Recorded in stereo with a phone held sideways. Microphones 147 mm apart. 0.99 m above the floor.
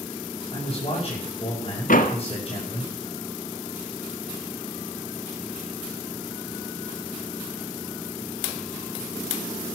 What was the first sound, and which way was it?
A man speaking, 35° left (ahead or behind).